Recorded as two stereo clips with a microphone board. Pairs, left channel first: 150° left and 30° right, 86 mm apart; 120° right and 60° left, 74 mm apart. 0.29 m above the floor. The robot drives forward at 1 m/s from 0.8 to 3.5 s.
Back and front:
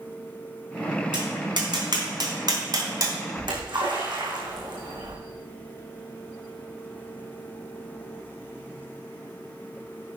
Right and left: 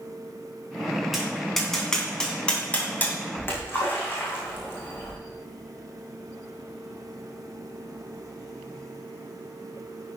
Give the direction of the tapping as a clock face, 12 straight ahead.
1 o'clock.